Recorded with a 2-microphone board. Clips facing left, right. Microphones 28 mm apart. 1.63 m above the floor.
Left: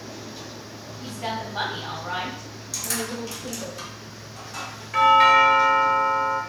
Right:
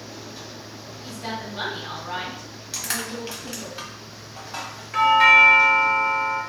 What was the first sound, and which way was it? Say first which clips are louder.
A woman speaking: left 2 dB; 80° left.